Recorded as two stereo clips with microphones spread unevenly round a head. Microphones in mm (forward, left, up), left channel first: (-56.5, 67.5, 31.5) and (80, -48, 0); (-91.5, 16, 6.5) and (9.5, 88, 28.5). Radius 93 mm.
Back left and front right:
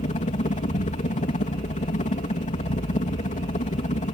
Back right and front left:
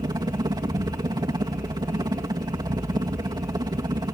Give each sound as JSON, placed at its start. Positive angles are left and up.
{"t": 0.0, "sound": "a helicopter", "azimuth_deg": 90}